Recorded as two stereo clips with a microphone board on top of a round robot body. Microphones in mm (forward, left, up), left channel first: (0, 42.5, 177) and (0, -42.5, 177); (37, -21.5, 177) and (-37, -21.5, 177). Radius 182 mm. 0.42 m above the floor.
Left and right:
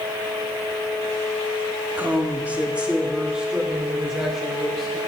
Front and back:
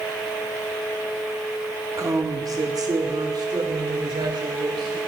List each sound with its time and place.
2.0 s a woman speaking: 155° right, 1.8 m; by 5.0 s 175° right, 3.5 m